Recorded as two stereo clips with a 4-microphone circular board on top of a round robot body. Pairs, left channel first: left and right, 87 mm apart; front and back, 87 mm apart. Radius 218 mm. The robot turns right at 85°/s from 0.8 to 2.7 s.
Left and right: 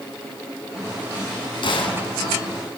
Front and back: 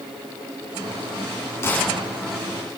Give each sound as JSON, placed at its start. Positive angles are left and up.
{"t": 1.6, "sound": "a gunshot", "azimuth_deg": 60, "distance_m": 3.5}